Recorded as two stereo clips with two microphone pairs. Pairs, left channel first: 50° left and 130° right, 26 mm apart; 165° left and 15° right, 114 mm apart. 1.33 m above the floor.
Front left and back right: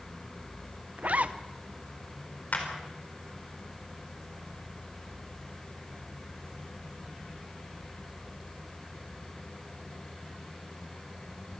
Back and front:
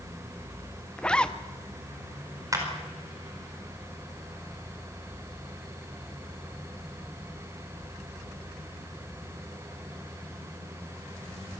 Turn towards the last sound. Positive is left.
turn(degrees=45)